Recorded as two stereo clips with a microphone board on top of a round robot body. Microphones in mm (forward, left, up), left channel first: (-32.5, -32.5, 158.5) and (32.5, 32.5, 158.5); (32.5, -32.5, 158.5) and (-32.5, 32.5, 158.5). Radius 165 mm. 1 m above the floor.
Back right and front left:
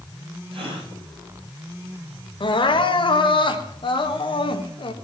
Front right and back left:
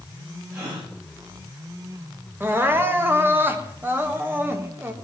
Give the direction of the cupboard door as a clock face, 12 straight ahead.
I don't hear a cupboard door.